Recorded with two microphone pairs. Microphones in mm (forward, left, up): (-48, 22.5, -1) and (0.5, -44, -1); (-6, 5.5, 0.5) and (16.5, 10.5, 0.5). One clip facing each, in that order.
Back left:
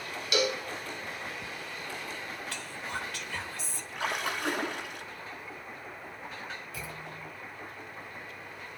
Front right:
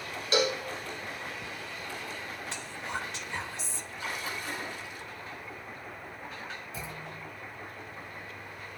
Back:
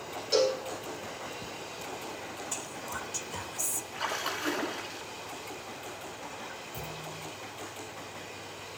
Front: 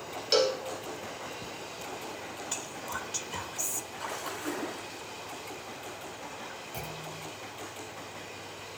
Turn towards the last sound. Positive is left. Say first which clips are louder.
# front right 1 dB, even
turn(degrees=5)